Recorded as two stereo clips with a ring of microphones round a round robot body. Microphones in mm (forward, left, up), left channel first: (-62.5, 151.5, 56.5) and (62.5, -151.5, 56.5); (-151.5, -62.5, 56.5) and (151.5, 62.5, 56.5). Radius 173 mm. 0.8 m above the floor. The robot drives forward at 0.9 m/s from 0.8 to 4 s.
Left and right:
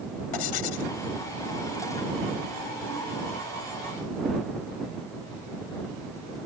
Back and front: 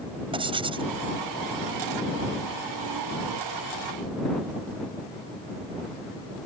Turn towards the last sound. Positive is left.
turn(degrees=125)